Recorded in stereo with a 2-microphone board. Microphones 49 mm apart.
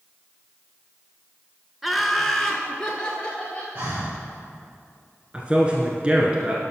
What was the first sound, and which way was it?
Laughter, centre (ahead or behind).